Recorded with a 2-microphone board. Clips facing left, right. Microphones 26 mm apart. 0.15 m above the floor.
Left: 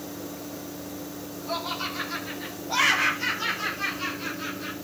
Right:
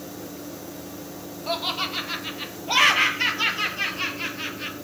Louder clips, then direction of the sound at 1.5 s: Right 4 dB; 55° right (ahead or behind).